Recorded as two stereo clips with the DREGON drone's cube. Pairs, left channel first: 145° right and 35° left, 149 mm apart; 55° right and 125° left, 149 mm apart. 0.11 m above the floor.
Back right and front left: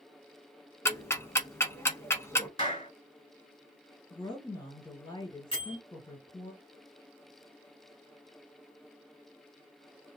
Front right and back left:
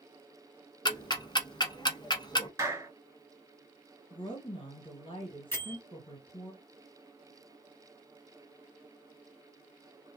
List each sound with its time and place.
0.8 s ticking: 85° right, 0.7 m
2.6 s a clap: 175° right, 1.9 m
4.1 s a woman speaking: 95° right, 2.5 m
5.5 s a bell: 120° right, 2 m